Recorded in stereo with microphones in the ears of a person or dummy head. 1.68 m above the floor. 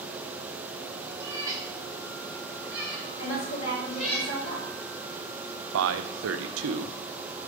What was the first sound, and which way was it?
A cat meowing, 20° right (ahead or behind).